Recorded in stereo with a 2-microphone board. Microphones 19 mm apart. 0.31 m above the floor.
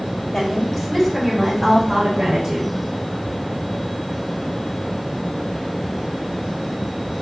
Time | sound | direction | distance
0.3 | a woman speaking | 15° left (ahead or behind) | 1.8 m